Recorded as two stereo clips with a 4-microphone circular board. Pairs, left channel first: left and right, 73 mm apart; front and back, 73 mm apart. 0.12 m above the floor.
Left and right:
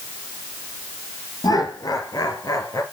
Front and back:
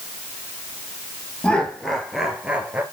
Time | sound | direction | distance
1.4 | laughter | 75° left | 2.5 m